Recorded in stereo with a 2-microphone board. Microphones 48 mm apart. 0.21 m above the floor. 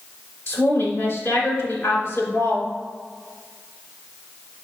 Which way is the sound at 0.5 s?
60° left (ahead or behind).